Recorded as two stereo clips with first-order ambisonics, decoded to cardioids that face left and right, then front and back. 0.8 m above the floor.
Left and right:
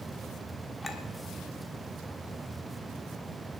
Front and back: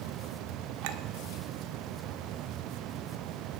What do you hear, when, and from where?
0.8 s a clink: 170° left, 1.0 m